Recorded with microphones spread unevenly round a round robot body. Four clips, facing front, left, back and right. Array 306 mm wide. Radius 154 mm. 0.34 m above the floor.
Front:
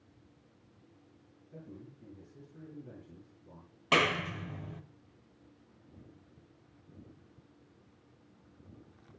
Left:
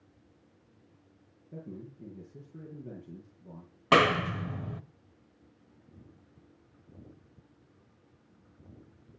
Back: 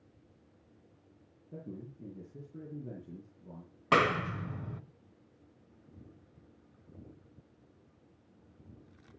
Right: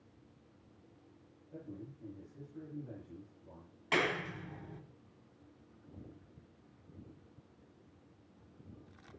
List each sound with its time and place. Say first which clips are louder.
1.5 s a man speaking: left 4 dB, back 5 dB; 135° left, 9.5 m
3.9 s a clap: left 11 dB, back 2 dB; 105° left, 1.2 m